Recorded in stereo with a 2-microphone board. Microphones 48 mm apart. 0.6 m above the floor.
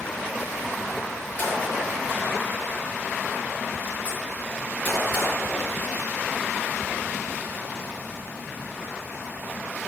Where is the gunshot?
25° left (ahead or behind), 6 m.